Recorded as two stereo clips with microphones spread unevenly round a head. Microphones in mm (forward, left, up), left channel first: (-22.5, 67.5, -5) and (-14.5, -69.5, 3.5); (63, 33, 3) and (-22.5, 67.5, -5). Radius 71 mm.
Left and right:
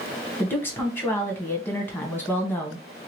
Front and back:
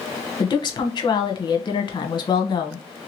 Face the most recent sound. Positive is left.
turn(degrees=15)